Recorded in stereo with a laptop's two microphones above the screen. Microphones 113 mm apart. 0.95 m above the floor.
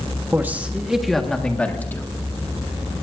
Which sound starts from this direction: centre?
A man speaking, at 0.3 s.